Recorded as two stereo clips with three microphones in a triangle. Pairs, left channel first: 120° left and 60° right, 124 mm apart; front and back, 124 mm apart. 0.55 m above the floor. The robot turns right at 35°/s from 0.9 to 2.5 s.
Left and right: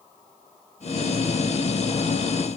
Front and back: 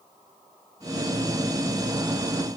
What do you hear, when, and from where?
Only background noise.